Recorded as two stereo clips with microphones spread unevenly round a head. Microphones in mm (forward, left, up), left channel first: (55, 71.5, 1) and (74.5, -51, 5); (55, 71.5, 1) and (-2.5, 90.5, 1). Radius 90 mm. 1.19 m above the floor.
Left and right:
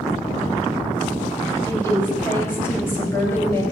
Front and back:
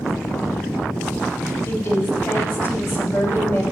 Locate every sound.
1.7 s a woman speaking: 30° left, 5.5 m